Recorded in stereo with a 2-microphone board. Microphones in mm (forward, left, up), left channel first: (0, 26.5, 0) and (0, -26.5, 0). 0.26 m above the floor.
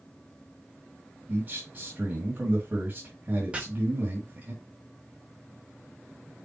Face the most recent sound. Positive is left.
turn(degrees=-25)  # may be behind; listen again after turning